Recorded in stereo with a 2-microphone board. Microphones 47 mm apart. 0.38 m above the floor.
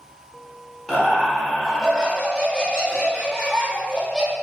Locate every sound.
0.9 s laughter: 10° left (ahead or behind), 0.8 m